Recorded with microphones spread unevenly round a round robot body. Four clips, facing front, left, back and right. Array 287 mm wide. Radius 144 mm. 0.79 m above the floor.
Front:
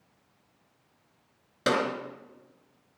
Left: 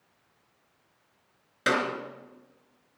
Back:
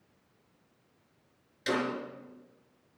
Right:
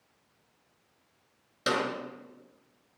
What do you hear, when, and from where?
1.7 s a clap: 5° left, 3 m